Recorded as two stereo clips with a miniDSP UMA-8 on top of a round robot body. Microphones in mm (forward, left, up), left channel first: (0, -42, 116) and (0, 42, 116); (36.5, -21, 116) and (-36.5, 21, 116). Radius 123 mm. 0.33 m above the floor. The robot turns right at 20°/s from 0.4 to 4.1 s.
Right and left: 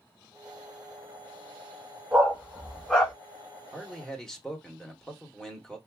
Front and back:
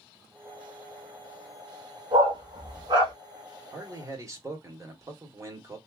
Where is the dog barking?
170° left, 1.4 m; by 3.1 s 170° right, 1.4 m.